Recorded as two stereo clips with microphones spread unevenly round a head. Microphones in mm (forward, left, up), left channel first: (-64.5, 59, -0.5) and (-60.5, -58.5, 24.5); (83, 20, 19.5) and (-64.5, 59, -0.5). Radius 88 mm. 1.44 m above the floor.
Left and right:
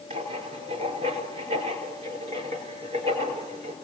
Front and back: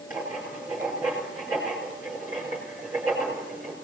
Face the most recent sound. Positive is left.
turn(degrees=-110)